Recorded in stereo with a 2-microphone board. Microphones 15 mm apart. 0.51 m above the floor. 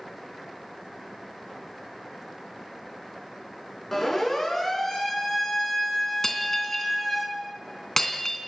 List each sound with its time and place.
3.9 s a siren: 15° left (ahead or behind), 6.5 m; by 7.2 s centre (ahead or behind), 8 m
6.2 s breaking glass: 30° left (ahead or behind), 3 m